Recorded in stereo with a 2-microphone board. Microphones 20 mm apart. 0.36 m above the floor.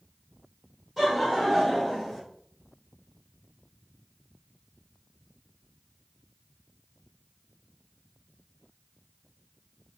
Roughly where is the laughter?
Centre.